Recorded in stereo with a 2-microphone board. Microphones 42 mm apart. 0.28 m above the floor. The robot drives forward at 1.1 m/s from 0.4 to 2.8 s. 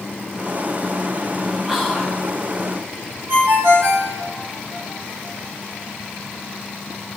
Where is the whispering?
10° right (ahead or behind), 6 m; by 2.2 s 5° right (ahead or behind), 6.5 m.